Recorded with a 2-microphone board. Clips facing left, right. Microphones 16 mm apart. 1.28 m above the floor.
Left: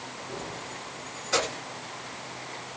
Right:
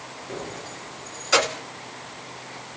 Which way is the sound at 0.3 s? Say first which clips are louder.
Right 4 dB; 55° right (ahead or behind).